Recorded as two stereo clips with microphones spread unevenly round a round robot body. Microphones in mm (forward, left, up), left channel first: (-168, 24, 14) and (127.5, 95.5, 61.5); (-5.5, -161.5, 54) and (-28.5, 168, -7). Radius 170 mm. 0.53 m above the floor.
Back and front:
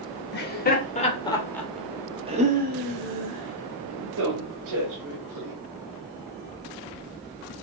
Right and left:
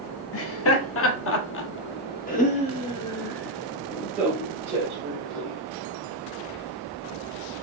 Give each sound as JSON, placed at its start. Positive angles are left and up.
{"t": 0.3, "sound": "laughter", "azimuth_deg": -135, "distance_m": 1.6}